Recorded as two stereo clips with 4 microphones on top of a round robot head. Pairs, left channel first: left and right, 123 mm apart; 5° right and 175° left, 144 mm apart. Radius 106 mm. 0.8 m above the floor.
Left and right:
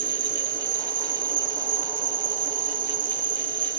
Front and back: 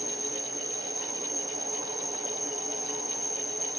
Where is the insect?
95° right.